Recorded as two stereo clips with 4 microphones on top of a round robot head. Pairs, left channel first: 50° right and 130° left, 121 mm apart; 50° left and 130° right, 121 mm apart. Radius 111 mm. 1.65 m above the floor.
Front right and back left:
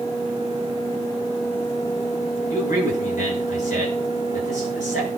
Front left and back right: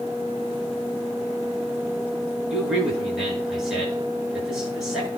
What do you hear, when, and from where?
2.5 s a man speaking: 40° right, 9 m